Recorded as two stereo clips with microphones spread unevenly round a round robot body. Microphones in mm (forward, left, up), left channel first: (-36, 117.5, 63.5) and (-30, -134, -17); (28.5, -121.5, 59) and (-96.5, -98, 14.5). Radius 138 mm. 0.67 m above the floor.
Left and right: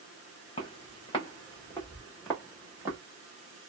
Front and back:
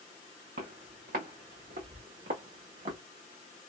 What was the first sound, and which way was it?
Footsteps, 150° left.